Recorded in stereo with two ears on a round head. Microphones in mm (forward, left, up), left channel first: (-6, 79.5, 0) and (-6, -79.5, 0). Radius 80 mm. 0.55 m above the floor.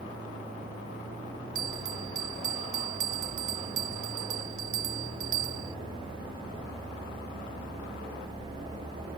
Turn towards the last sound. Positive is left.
turn(degrees=-40)  # may be behind; listen again after turning